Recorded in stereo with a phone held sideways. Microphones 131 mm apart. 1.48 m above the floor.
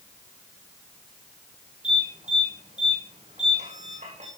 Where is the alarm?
70° right (ahead or behind), 8.5 m.